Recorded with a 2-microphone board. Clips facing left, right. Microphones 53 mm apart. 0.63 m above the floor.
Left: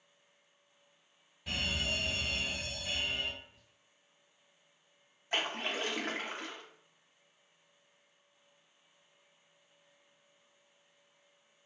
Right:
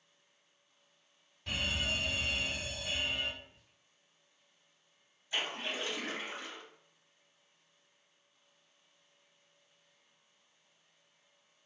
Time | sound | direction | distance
1.5 | a fire alarm | 5° left (ahead or behind) | 1.5 m
3.4 | whispering | 30° right (ahead or behind) | 0.9 m
5.3 | a splash | 55° left (ahead or behind) | 0.7 m